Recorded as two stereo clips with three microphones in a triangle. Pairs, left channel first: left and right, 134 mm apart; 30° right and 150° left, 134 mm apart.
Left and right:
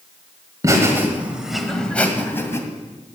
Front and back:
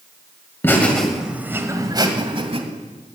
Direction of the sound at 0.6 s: 80° right.